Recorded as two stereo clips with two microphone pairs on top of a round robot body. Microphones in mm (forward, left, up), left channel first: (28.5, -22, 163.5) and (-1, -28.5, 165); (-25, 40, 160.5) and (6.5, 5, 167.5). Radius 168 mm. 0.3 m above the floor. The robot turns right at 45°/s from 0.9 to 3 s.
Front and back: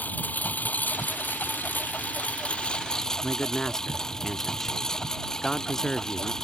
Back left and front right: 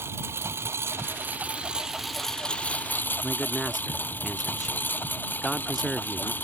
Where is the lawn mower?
10° right; by 6.4 s 80° left.